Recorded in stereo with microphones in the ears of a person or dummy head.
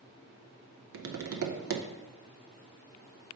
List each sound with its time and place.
0.9 s tapping: 65° right (ahead or behind), 0.6 m